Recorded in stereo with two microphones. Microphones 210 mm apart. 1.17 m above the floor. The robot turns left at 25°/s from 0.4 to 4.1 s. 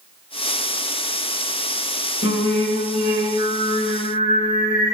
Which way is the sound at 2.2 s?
100° left.